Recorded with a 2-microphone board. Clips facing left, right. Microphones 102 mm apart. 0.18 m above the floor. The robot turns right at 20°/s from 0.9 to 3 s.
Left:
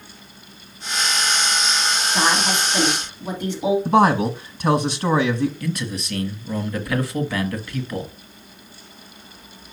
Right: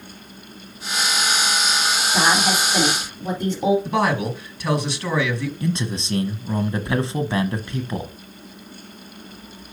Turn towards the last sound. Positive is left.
turn(degrees=-25)  # may be behind; listen again after turning